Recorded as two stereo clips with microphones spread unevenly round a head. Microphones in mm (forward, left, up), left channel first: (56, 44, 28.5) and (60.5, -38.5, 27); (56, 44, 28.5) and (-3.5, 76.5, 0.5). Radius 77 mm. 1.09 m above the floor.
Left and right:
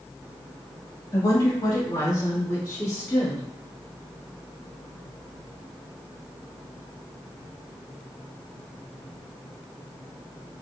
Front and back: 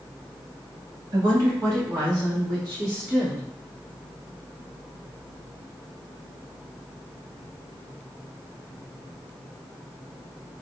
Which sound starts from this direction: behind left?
A woman speaking, at 1.1 s.